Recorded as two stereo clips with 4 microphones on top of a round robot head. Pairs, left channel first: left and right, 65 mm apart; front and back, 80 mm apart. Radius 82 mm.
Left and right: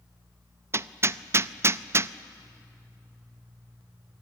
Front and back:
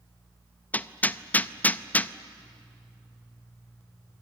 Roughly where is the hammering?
Ahead right.